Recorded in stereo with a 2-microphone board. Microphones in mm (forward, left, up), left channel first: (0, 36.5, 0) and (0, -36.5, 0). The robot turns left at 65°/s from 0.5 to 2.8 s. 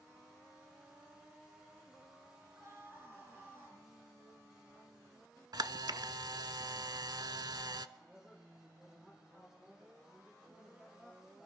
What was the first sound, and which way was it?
A scream, 45° right (ahead or behind).